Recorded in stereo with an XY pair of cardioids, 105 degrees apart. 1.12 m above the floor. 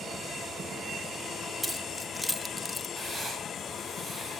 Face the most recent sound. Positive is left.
turn(degrees=-30)